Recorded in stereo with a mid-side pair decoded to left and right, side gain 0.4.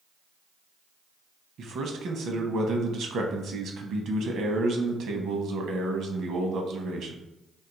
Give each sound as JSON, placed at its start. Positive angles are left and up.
{"t": 1.6, "sound": "a man speaking", "azimuth_deg": -70, "distance_m": 0.7}